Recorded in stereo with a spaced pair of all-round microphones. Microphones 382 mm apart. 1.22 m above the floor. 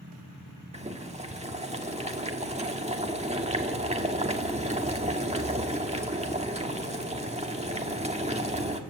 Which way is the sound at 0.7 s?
15° right (ahead or behind).